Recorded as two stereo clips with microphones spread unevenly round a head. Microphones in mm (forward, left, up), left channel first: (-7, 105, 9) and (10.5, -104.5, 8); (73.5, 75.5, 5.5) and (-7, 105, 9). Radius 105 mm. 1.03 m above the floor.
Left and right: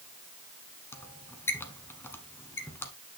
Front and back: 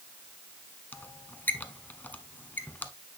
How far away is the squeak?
About 1.0 m.